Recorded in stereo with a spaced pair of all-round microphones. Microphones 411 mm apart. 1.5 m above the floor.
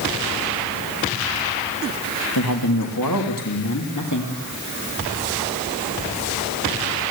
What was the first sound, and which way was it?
A man speaking, 70° left (ahead or behind).